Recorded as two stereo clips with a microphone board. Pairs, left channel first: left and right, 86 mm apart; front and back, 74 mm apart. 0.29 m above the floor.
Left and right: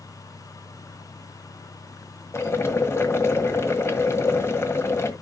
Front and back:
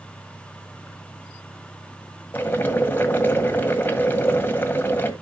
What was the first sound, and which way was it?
Boiling, 50° left.